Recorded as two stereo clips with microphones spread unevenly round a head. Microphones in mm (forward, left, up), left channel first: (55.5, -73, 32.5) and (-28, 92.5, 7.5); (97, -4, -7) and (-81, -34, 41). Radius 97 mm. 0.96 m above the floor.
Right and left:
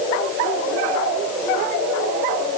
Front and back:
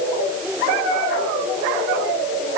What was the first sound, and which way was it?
Only background noise.